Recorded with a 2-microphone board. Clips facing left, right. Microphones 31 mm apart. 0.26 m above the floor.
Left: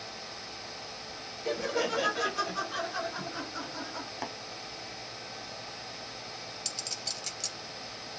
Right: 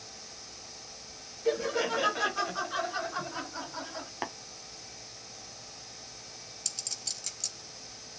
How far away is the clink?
About 1.4 m.